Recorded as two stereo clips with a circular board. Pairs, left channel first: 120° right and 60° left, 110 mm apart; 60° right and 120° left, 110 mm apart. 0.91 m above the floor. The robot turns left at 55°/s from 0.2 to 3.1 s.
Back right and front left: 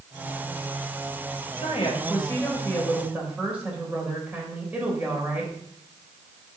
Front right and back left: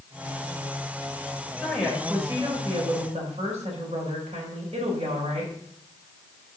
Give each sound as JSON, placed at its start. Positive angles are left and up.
{"t": 1.6, "sound": "a woman speaking", "azimuth_deg": -140, "distance_m": 3.0}